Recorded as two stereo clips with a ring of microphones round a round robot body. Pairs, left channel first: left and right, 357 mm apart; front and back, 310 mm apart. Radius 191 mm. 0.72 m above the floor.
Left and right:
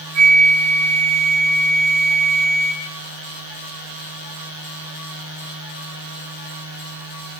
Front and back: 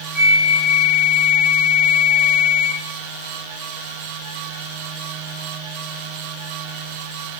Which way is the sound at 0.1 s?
40° right.